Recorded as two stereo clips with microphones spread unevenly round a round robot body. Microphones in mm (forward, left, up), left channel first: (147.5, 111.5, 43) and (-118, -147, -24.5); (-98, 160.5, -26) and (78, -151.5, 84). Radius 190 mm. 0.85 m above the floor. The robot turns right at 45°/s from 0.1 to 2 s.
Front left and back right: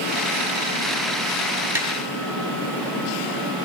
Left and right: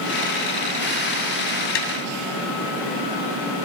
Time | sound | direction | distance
1.8 | tapping | 140° left | 3 m